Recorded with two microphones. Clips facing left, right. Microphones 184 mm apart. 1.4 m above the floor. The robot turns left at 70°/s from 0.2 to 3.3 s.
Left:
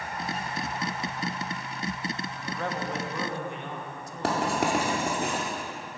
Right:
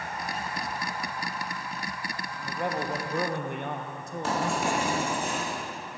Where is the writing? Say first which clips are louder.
Left 2 dB; 70° left (ahead or behind), 1.8 m.